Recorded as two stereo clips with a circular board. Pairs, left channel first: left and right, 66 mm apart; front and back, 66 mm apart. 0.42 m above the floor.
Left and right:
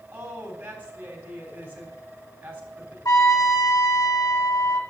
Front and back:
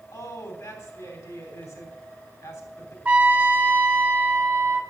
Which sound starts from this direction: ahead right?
A woman speaking, at 0.1 s.